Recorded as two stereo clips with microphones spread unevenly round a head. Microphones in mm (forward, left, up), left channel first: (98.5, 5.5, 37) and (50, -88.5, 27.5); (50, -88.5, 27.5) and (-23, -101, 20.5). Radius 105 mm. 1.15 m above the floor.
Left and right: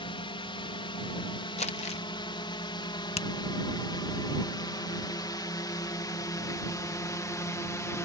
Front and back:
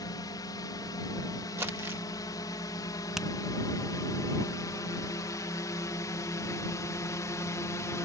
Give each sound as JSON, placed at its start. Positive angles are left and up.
{"t": 0.0, "sound": "a drone", "azimuth_deg": 45}
{"t": 1.6, "sound": "crumpling", "azimuth_deg": 115}
{"t": 3.2, "sound": "a finger snap", "azimuth_deg": 105}